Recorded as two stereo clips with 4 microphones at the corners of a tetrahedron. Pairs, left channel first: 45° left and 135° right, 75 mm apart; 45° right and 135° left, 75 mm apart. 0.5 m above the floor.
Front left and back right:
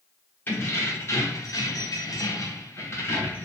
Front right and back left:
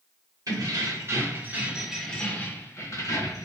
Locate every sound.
0.5 s keys jangling: 105° left, 1.0 m; by 3.5 s 15° right, 0.9 m